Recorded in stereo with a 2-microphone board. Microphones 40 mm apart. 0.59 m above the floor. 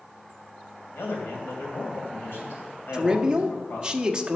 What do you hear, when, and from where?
0.9 s a man speaking: 70° left (ahead or behind), 3 m
2.9 s a man speaking: 20° right (ahead or behind), 0.8 m